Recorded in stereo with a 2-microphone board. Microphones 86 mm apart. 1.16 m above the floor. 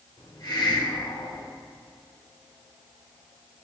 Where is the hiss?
50° left (ahead or behind), 1.2 m.